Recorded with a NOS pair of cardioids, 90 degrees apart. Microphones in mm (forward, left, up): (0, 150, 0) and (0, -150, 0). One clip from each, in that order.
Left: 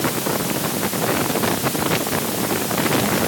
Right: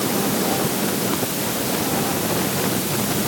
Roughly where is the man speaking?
No man speaking in this recording.